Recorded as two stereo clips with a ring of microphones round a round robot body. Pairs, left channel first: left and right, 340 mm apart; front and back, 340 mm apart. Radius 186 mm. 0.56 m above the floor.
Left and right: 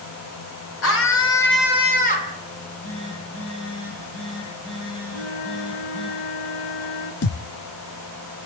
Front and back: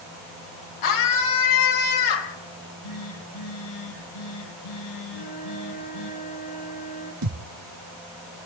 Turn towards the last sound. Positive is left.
turn(degrees=140)